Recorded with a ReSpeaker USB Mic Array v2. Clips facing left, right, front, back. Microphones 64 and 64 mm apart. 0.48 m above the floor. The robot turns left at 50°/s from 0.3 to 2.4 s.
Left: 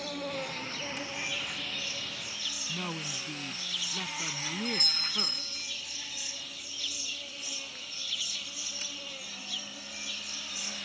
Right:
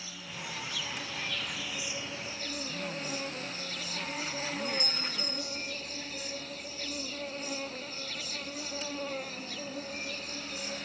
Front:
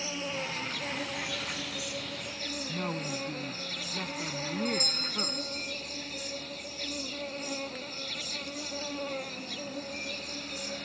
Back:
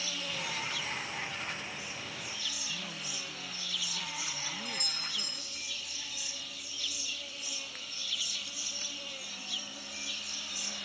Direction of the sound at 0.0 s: 60° left.